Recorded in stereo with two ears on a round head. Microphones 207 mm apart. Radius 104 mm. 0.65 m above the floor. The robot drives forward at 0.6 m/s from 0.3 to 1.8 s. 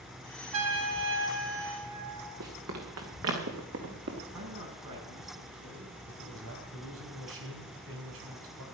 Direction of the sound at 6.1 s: 55° right (ahead or behind).